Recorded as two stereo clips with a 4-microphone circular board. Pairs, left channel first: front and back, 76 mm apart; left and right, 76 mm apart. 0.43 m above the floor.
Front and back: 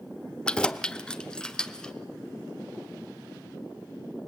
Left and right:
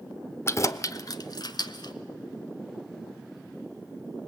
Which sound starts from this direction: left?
Keys jangling, at 0.5 s.